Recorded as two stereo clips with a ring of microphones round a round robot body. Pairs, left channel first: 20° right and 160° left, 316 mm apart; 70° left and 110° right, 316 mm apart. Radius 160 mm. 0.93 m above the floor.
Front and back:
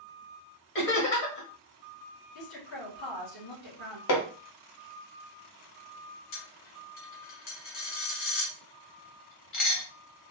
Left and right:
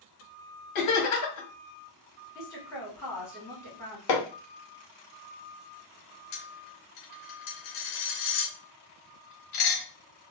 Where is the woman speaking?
15° right, 2.5 m.